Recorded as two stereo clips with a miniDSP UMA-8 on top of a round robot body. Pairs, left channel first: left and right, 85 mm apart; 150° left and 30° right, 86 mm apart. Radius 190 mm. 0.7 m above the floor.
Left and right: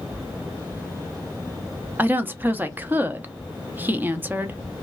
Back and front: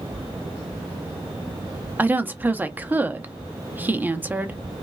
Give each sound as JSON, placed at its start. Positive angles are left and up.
{"t": 2.0, "sound": "a woman speaking", "azimuth_deg": -60, "distance_m": 0.8}